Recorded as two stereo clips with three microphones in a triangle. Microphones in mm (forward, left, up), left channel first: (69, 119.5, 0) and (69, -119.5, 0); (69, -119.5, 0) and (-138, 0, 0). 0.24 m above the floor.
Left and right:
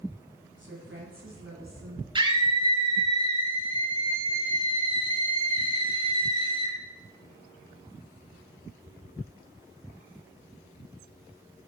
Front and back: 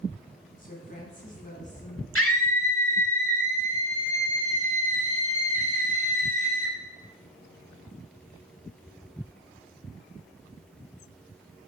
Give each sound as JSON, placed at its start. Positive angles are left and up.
{"t": 0.6, "sound": "a woman speaking", "azimuth_deg": -75, "distance_m": 2.5}
{"t": 2.1, "sound": "a scream", "azimuth_deg": -20, "distance_m": 4.0}